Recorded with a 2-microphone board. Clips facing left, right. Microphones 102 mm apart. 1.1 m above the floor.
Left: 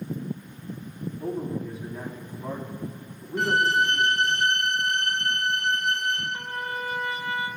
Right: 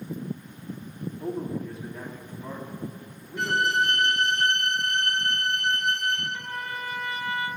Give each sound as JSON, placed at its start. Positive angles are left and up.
{"t": 1.2, "sound": "a man speaking", "side_deg": -5, "distance_m": 2.5}
{"t": 3.4, "sound": "a violin", "side_deg": 50, "distance_m": 3.5}
{"t": 6.3, "sound": "a trumpet", "side_deg": 35, "distance_m": 1.2}